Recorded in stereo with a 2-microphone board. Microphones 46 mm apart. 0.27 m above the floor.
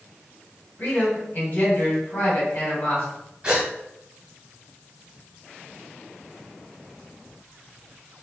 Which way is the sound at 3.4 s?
20° right (ahead or behind).